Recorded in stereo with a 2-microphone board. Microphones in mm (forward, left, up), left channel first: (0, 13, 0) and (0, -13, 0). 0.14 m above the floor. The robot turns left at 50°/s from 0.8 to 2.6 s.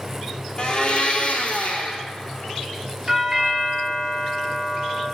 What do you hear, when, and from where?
0.6 s a blender: 145° left, 0.6 m; by 2.0 s 80° left, 0.6 m
3.1 s a doorbell: 10° right (ahead or behind), 1.8 m